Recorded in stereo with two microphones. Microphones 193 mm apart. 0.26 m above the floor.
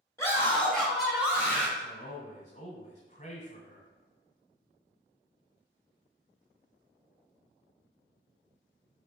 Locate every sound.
0.2 s a scream: 15° left (ahead or behind), 1.1 m; by 1.7 s 15° right (ahead or behind), 1.1 m
1.8 s a man speaking: 35° left (ahead or behind), 1.3 m